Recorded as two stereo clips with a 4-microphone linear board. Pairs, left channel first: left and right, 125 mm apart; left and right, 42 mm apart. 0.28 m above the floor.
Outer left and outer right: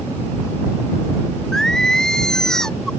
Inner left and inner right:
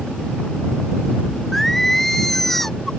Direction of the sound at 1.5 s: 5° left (ahead or behind).